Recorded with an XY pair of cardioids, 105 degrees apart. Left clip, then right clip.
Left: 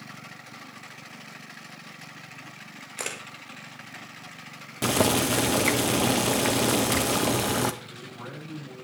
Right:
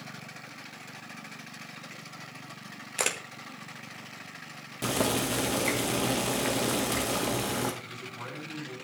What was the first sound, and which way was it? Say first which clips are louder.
A camera shutter: right 4 dB; 35° right.